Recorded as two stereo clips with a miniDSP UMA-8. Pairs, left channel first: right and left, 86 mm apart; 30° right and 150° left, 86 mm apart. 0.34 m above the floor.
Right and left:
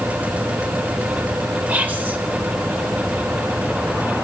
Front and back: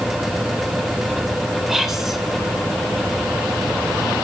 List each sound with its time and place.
1.7 s whispering: 70° left, 0.8 m